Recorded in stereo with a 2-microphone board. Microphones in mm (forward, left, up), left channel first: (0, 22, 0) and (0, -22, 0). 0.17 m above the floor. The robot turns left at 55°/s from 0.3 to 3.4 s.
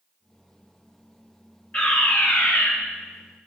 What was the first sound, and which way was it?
A fire alarm, 145° left.